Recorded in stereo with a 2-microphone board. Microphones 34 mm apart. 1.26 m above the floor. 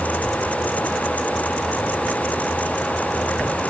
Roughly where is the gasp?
No gasp in this recording.